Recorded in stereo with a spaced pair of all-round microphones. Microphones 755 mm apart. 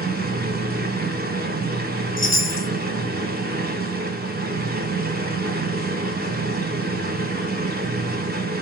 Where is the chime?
20° left (ahead or behind), 0.5 m.